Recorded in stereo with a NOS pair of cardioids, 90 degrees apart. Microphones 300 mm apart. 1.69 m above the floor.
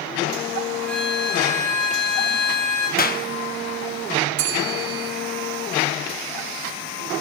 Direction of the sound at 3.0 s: 30° left.